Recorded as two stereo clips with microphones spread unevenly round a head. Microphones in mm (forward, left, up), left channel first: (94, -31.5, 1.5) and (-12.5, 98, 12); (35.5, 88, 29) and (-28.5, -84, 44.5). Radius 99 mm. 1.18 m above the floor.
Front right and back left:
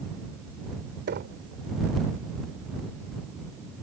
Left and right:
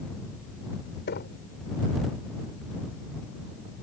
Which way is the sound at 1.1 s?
110° left.